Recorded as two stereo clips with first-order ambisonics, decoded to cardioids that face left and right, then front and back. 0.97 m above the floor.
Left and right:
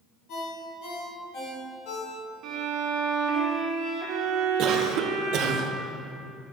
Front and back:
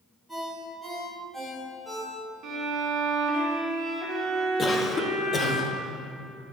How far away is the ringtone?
About 2.5 m.